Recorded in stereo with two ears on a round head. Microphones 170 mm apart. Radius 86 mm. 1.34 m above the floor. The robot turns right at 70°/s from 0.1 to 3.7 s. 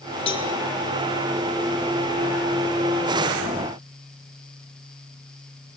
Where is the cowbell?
30° left (ahead or behind), 3.5 m; by 0.5 s 15° left (ahead or behind), 3.5 m.